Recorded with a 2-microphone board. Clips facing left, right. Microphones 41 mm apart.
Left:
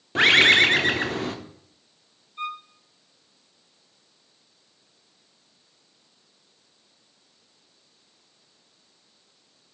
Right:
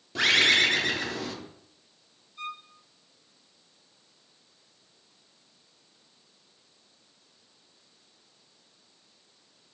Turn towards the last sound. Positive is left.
turn(degrees=35)  # may be behind; listen again after turning